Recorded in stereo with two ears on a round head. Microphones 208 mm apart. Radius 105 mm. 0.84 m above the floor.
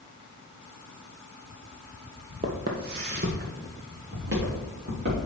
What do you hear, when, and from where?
2.4 s footsteps: 35° right (ahead or behind), 0.9 m; by 5.2 s 55° right (ahead or behind), 4 m